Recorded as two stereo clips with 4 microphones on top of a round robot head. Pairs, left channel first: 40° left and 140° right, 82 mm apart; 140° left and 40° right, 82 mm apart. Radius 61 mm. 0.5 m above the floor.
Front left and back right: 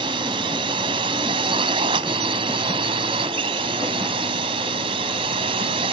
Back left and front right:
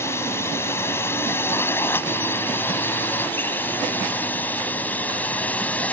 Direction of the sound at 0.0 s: 160° right.